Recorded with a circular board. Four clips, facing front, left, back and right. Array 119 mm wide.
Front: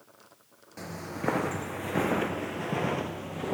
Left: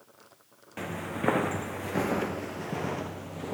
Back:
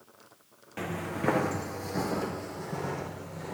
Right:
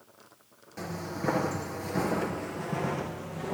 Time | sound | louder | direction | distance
0.8 | footsteps | left 2 dB, back 3 dB | 140° left | 0.9 m